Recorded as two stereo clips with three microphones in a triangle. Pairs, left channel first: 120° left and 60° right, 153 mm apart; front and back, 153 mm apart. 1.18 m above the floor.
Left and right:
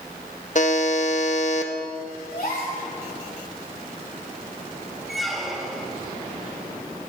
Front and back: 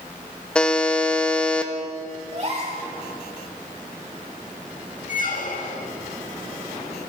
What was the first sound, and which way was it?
A buzzer, 85° left.